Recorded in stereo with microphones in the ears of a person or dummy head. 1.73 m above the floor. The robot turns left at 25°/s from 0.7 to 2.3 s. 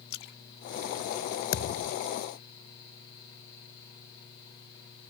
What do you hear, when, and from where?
0.1 s a splash: 75° left (ahead or behind)
1.5 s a thud: 60° left (ahead or behind); by 2.0 s 65° left (ahead or behind)